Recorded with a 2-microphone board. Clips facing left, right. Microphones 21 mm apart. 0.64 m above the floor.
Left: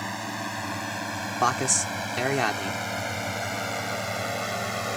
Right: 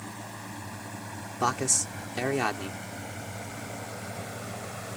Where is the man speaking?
20° left (ahead or behind).